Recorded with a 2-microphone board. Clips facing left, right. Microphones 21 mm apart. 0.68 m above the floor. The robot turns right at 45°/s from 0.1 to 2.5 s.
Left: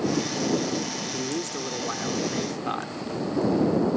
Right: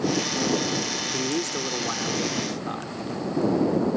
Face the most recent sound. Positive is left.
turn(degrees=20)